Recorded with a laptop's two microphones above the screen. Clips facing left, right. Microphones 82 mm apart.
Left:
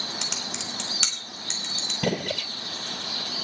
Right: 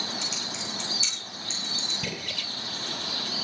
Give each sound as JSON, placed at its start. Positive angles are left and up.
{"t": 0.2, "sound": "typing on a keyboard", "side_deg": 75, "distance_m": 3.0}
{"t": 2.0, "sound": "a gunshot", "side_deg": 55, "distance_m": 0.9}